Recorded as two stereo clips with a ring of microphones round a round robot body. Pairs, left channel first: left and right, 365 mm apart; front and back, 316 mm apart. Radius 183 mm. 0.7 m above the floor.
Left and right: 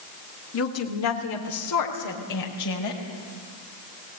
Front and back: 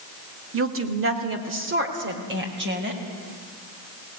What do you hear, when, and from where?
0.5 s a woman speaking: 140° left, 2 m; by 3.0 s 125° left, 4.5 m